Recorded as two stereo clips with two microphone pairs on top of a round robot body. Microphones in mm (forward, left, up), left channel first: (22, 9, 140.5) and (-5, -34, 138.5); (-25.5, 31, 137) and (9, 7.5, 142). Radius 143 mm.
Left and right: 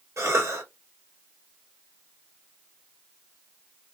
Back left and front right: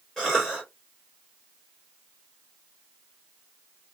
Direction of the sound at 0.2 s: 130° right.